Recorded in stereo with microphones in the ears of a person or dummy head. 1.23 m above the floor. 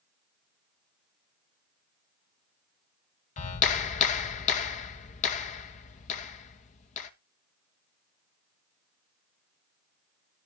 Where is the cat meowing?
I don't hear a cat meowing.